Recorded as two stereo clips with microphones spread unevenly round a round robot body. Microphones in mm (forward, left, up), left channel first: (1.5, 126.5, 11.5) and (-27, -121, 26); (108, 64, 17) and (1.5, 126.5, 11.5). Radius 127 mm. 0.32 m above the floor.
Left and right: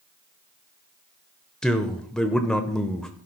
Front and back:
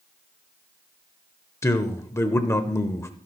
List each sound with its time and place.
1.6 s a man speaking: 5° left, 0.9 m